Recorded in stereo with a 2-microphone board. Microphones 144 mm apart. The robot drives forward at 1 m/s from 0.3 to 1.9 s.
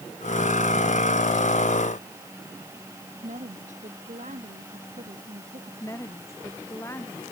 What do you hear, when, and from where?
3.2 s a woman speaking: 60° right (ahead or behind)
5.8 s a woman speaking: 20° left (ahead or behind)